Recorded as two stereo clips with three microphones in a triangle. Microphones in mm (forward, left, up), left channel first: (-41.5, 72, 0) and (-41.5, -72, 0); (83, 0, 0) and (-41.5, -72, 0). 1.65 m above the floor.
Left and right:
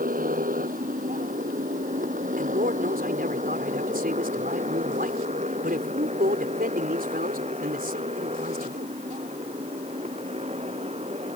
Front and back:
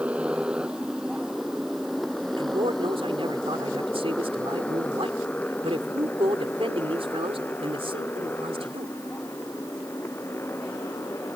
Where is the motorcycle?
70° right; by 11.4 s 45° right.